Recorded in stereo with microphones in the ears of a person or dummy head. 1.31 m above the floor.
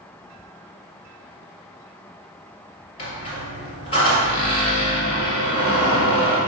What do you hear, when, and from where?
3.0 s a squeak: 30° left (ahead or behind), 1.9 m